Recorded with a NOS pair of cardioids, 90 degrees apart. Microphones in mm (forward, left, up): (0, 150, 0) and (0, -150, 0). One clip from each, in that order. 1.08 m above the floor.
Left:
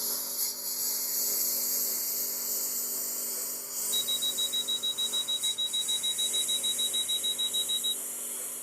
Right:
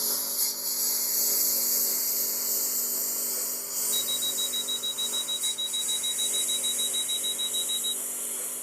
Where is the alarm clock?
5° left.